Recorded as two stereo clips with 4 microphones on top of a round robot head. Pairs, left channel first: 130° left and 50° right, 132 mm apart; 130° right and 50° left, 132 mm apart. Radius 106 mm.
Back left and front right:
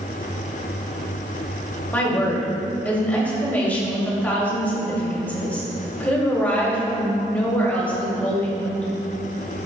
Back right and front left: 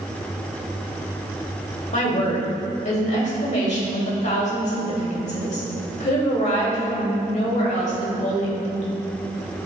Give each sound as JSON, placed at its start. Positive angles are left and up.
{"t": 1.9, "sound": "a woman speaking", "azimuth_deg": -155, "distance_m": 2.5}